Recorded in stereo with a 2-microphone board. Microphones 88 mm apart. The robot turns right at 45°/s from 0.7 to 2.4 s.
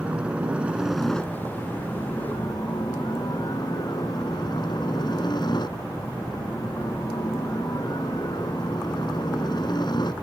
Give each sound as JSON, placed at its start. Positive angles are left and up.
{"t": 0.0, "sound": "a helicopter", "azimuth_deg": -15}